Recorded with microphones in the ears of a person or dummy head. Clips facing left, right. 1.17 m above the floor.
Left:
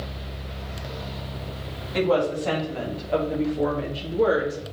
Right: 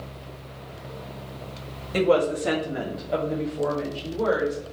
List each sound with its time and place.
1.9 s a woman speaking: 40° right (ahead or behind), 2.5 m; by 4.6 s 35° left (ahead or behind), 2.5 m